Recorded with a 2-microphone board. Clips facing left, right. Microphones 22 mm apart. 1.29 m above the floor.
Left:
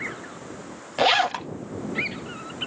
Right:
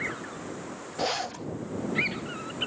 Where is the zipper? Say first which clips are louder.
Left 10 dB; 75° left (ahead or behind).